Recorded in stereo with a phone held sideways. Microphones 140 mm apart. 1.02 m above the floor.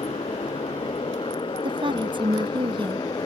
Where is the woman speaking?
35° right (ahead or behind).